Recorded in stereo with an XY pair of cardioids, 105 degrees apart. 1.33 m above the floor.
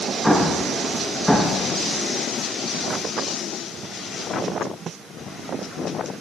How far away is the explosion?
About 1.5 m.